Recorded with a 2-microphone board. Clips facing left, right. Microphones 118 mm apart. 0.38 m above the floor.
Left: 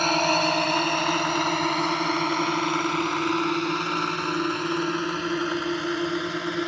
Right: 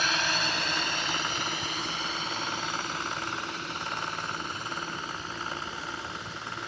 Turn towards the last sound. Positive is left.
turn(degrees=75)  # may be behind; listen again after turning